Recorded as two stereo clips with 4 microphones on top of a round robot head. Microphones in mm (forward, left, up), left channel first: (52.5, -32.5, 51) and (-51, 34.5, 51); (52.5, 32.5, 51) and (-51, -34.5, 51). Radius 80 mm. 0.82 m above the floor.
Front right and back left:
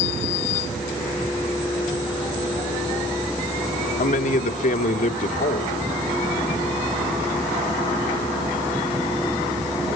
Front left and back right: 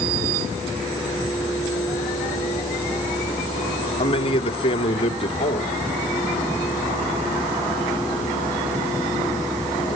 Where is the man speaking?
15° right, 1.7 m.